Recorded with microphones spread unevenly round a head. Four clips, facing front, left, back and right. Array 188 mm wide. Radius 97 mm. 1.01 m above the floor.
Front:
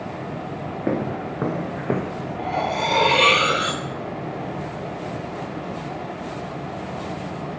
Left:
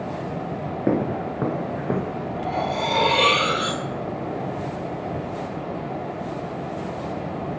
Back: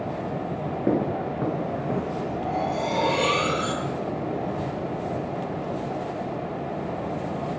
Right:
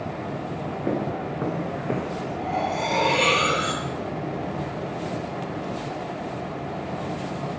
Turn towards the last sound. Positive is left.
turn(degrees=10)